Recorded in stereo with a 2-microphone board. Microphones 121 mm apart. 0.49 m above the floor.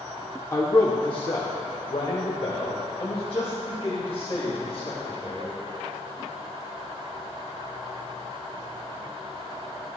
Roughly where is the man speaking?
Left.